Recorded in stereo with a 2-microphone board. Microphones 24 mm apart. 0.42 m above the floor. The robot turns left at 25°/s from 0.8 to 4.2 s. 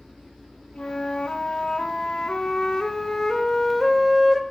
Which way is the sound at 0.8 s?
90° left.